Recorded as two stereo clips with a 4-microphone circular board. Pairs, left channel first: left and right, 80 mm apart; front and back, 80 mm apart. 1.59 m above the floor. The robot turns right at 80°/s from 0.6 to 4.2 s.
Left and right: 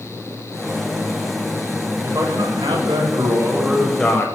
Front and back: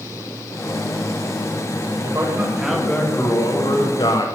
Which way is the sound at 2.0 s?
145° right.